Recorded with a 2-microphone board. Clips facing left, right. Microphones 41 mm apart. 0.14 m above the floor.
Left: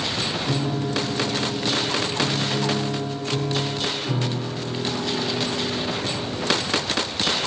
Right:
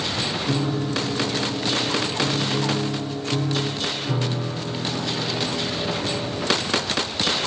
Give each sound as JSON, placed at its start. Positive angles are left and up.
{"t": 0.5, "sound": "a piano", "side_deg": 10, "distance_m": 3.5}